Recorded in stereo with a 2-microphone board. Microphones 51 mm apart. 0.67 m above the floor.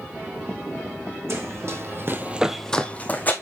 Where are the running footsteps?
55° right (ahead or behind), 1.9 m; by 3.3 s 35° left (ahead or behind), 1.7 m.